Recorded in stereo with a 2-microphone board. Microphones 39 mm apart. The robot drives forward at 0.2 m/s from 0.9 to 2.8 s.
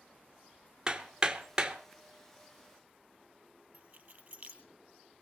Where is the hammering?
20° right (ahead or behind), 1.2 m.